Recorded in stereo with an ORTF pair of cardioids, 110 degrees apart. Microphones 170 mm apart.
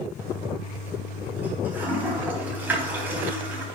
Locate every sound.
0.2 s a toilet flushing: 10° right, 3.5 m